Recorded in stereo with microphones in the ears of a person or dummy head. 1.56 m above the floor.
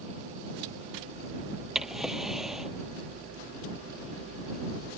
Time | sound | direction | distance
1.8 | a drawer | centre (ahead or behind) | ?